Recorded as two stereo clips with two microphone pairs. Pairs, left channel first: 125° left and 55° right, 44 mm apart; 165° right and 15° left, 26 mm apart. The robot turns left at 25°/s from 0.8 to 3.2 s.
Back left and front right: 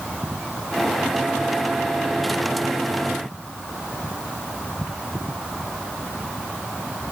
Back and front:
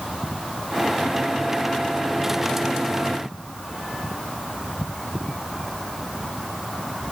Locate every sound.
Only background noise.